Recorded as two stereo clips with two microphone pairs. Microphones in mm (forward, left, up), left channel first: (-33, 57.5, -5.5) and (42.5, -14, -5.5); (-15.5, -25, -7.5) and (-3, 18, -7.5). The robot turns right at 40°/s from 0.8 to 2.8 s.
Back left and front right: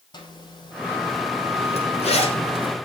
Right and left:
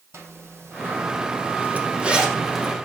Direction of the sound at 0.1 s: 90° left.